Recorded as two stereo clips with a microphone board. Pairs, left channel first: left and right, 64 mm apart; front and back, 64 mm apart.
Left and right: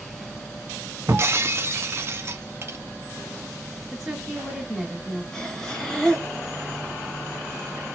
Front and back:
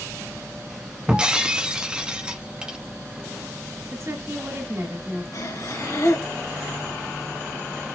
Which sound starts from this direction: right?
Breaking glass, at 1.1 s.